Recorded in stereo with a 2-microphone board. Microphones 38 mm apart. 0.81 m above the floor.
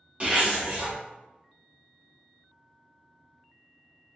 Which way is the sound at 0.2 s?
35° right (ahead or behind).